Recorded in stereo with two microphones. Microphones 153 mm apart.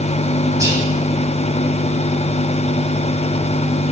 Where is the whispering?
20° right (ahead or behind), 2.5 m.